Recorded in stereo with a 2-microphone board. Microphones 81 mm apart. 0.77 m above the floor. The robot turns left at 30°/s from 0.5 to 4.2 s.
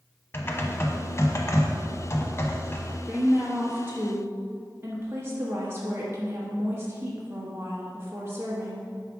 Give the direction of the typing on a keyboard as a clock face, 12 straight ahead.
8 o'clock.